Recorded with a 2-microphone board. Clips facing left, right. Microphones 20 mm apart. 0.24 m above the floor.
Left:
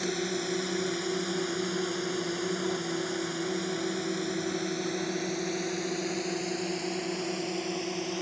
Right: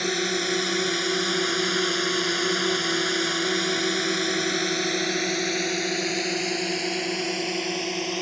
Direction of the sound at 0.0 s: 45° right (ahead or behind).